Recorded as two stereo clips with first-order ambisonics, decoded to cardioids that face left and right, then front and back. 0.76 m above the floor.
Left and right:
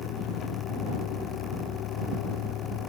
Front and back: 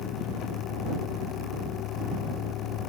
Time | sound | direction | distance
0.0 | a vehicle | 40° left | ?